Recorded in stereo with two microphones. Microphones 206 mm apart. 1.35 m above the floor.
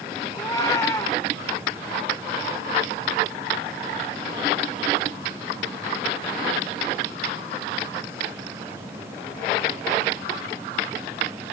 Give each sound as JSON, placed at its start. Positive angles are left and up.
{"t": 0.3, "sound": "a cat meowing", "side_deg": 20, "distance_m": 2.5}